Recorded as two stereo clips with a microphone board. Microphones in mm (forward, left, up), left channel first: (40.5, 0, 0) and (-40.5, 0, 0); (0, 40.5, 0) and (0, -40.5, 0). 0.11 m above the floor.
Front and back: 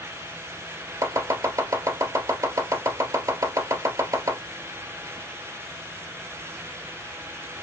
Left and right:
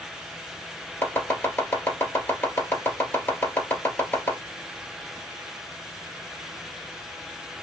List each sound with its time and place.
1.0 s chopping: 150° left, 2.5 m